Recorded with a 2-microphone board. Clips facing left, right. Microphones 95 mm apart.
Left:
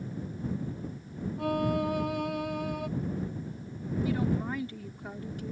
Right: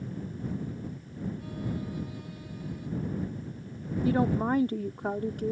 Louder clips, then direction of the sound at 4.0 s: Right 5 dB; 55° right (ahead or behind).